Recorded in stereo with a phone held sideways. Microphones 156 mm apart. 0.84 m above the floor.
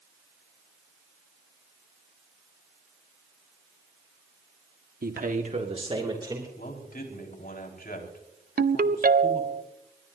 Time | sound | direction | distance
5.0 | a man speaking | 70° right (ahead or behind) | 1.4 m
6.6 | a man speaking | 75° left (ahead or behind) | 4.5 m
8.6 | a ringtone | 70° right (ahead or behind) | 0.6 m